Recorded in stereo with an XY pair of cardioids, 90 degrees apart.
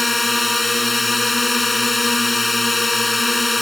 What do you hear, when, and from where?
0.0 s a drone: 15° left